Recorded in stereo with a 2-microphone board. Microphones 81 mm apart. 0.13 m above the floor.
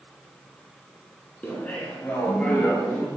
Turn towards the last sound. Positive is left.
turn(degrees=10)  # may be behind; listen again after turning